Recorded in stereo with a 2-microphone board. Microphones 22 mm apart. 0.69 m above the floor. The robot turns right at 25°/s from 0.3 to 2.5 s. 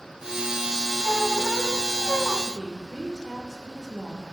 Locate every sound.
1.0 s a squeak: 105° left, 0.9 m; by 2.4 s 135° left, 0.9 m
2.5 s a woman speaking: 10° right (ahead or behind), 2.5 m; by 4.2 s 15° right (ahead or behind), 2.5 m